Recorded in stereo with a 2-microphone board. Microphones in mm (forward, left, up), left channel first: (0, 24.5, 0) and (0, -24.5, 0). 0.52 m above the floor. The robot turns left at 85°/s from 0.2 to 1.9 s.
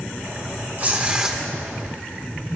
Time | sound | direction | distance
0.8 | tearing paper | 120° right | 1.3 m